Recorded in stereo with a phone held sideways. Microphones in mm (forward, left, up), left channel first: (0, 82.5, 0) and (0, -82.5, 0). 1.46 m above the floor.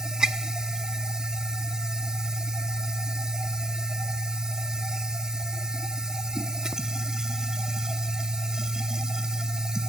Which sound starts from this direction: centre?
A machine running, at 0.0 s.